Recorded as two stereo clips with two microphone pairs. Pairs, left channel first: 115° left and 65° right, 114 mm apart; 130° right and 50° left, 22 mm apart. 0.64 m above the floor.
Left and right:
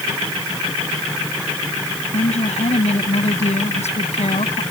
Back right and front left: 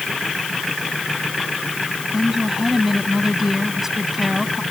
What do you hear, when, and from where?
2.1 s a woman speaking: 125° left